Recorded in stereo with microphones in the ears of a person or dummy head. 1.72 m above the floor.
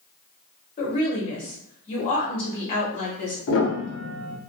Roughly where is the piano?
Left.